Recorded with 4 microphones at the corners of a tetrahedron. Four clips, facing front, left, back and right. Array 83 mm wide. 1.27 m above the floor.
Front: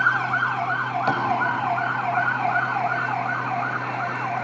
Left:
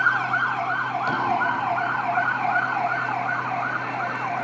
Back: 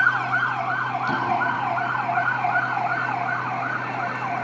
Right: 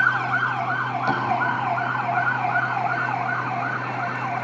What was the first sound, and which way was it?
Tapping, 15° right.